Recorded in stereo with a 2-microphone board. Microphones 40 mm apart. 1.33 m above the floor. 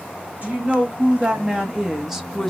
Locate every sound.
0.4 s a woman speaking: 35° right (ahead or behind), 1.6 m; by 2.5 s 10° left (ahead or behind), 0.7 m